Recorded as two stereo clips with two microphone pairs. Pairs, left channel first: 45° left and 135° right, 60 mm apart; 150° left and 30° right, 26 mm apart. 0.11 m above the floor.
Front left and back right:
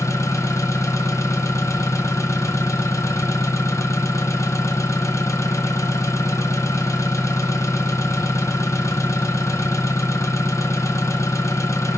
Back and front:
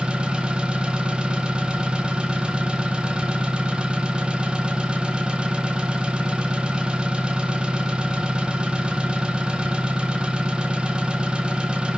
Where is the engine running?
20° left, 1.0 m.